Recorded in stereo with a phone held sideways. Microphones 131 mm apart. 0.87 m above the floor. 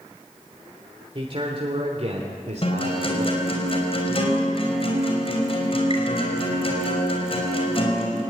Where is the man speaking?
40° right (ahead or behind), 3 m; by 3.6 s 70° right (ahead or behind), 3 m.